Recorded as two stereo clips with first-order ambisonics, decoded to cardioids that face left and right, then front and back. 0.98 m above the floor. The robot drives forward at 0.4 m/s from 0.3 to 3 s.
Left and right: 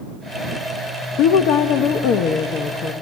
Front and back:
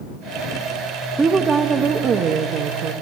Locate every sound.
1.2 s a woman speaking: 105° left, 1.0 m; by 2.9 s 140° left, 1.3 m